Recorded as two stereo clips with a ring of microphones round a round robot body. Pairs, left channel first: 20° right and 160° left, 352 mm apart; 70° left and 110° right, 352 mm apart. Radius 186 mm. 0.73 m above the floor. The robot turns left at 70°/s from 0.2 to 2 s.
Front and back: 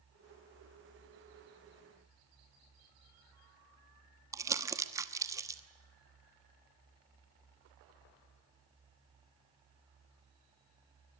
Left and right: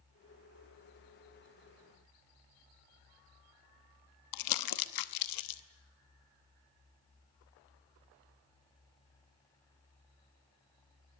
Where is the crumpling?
75° left, 1.0 m.